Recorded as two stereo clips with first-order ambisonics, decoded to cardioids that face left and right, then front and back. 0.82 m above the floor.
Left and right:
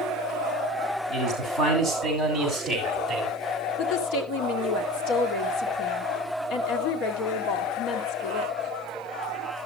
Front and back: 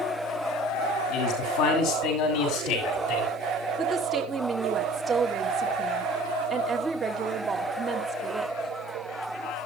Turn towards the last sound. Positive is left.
turn(degrees=100)